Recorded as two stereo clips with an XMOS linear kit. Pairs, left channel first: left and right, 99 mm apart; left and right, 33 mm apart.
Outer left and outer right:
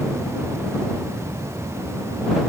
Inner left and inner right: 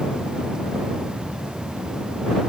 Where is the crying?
I don't hear crying.